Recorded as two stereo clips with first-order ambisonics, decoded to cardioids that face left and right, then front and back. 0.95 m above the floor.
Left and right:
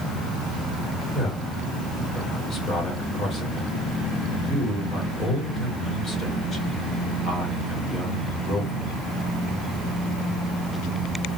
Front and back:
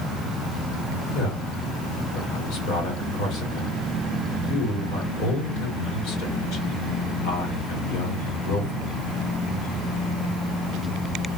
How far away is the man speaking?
About 2.0 m.